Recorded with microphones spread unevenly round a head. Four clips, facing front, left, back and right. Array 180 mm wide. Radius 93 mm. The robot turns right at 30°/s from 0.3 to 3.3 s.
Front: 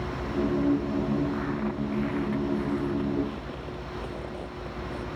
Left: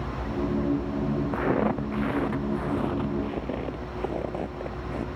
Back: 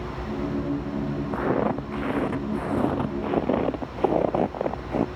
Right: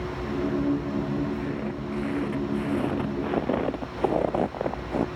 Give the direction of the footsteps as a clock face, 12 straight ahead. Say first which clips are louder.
Left 6 dB, back 6 dB; 7 o'clock.